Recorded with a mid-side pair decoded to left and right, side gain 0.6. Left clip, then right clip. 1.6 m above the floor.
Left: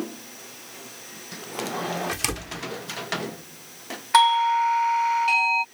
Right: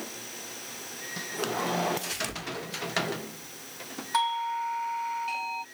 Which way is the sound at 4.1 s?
50° left.